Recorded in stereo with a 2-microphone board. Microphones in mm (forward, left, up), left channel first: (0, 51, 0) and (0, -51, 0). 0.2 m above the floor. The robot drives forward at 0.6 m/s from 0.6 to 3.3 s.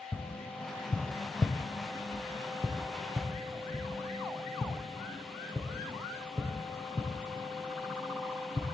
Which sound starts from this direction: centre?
Tapping, at 0.1 s.